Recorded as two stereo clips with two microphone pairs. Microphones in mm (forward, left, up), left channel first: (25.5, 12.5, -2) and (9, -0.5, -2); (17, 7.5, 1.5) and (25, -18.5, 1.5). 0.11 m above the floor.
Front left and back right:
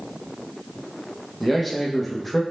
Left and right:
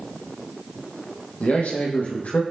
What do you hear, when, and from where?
1.4 s a man speaking: 130° left, 5.5 m